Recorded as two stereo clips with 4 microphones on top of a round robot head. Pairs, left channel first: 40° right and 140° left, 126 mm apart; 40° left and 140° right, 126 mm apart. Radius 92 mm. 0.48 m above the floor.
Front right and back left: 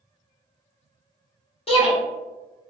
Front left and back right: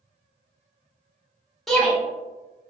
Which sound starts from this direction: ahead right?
A shout, at 1.7 s.